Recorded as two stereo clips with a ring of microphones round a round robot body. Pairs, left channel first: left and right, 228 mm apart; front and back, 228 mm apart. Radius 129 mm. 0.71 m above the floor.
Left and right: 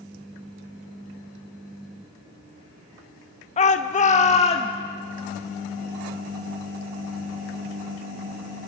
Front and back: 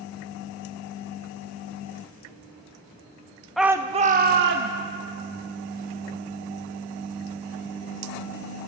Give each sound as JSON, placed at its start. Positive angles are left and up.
{"t": 3.6, "sound": "a shout", "azimuth_deg": 90, "distance_m": 0.7}